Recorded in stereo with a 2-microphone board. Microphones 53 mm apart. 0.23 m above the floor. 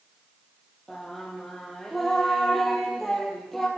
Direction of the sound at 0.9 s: Centre (ahead or behind).